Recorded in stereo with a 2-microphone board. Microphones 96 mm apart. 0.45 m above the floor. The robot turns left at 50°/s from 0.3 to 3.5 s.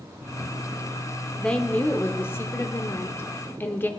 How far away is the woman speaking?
About 0.8 m.